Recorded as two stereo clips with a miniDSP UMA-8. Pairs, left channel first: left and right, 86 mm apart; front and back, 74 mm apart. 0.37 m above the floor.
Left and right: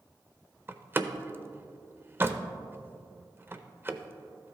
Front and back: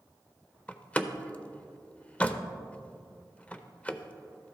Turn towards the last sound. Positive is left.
turn(degrees=-55)